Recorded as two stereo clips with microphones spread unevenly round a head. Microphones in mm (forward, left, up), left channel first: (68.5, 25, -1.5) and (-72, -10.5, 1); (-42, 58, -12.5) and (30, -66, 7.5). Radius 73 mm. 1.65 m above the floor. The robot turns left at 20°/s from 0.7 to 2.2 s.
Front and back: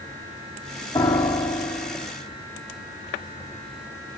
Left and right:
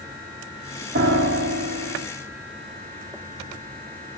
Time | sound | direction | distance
0.9 | a piano | 55° right | 3.5 m